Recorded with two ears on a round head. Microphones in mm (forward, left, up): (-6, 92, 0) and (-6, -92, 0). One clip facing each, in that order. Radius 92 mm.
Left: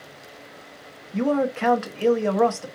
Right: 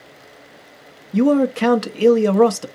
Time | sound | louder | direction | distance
1.1 | a man speaking | right 7 dB | 45° right (ahead or behind) | 0.7 m